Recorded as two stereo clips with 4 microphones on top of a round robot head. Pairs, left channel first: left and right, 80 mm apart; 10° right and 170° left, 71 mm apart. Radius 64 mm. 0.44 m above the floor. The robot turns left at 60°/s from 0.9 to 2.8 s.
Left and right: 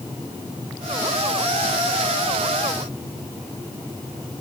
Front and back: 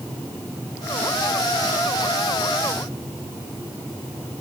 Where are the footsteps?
I don't hear footsteps.